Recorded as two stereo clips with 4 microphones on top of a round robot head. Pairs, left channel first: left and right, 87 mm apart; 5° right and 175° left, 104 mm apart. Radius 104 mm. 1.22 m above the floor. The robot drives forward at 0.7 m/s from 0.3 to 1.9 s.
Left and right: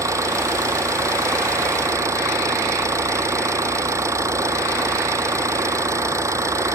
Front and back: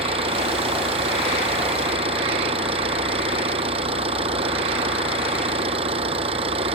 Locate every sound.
0.0 s an engine running: 145° right